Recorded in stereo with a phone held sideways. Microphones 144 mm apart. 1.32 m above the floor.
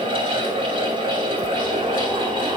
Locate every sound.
0.0 s a fan: 40° right (ahead or behind), 6 m